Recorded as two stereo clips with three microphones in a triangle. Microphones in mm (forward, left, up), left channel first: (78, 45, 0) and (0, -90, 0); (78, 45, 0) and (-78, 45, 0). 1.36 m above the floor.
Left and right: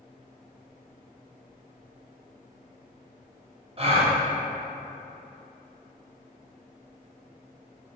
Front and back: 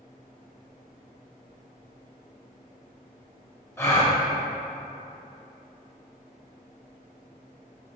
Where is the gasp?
70° right, 0.6 m.